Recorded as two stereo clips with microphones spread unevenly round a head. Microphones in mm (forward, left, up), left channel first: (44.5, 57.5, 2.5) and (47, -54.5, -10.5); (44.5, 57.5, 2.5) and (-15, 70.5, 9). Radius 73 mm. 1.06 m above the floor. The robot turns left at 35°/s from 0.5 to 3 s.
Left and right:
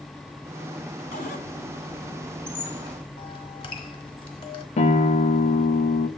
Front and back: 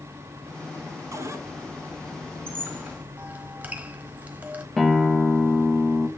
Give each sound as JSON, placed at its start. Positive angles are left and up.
{"t": 1.1, "sound": "a cupboard door", "azimuth_deg": 135, "distance_m": 1.3}
{"t": 2.5, "sound": "a squeak", "azimuth_deg": 135, "distance_m": 1.3}
{"t": 4.8, "sound": "a guitar", "azimuth_deg": 75, "distance_m": 1.3}